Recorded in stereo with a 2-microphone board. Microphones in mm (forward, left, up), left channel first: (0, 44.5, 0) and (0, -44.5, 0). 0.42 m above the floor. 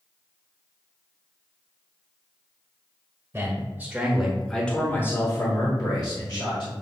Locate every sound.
3.3 s a man speaking: 30° right (ahead or behind), 1.4 m; by 6.7 s 60° left (ahead or behind), 1.7 m